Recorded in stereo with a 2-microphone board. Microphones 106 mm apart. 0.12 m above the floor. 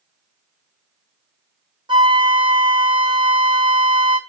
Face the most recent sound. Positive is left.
turn(degrees=-50)  # may be behind; listen again after turning